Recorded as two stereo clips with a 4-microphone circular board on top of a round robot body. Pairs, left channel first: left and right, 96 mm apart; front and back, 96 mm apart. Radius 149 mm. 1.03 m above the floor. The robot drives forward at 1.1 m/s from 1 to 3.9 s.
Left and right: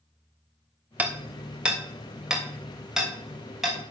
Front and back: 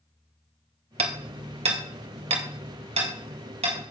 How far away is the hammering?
About 1.4 m.